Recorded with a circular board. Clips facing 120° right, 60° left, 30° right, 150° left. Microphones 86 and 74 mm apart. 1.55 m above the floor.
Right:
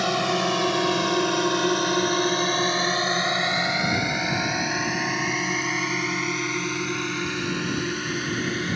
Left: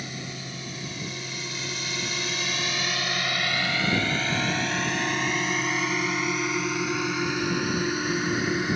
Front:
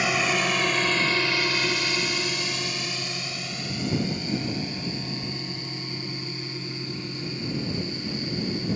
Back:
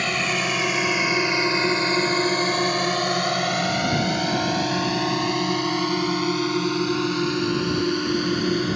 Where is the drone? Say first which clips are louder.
Right 15 dB, even; 115° right; by 8.8 s 140° left.